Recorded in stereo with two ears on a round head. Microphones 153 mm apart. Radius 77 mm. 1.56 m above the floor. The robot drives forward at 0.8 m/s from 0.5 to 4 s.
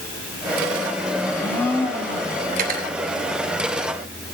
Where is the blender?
15° left (ahead or behind), 5 m; by 2.4 s 10° left (ahead or behind), 6 m.